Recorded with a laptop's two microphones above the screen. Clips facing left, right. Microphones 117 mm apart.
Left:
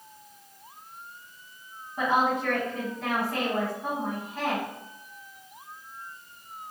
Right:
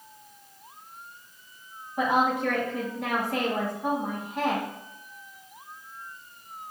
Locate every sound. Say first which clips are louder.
2.0 s a woman speaking: right 1 dB; 10° right (ahead or behind), 0.8 m